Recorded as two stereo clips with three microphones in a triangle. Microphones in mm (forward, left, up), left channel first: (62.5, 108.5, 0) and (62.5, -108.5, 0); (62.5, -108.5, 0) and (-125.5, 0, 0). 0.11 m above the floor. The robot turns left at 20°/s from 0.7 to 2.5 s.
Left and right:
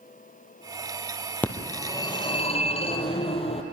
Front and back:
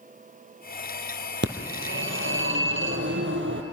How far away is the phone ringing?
About 1.8 m.